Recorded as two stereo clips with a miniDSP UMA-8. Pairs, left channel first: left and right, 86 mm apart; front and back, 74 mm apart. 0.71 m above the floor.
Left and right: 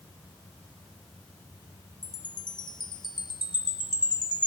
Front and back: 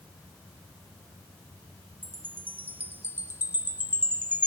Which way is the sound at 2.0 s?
115° left.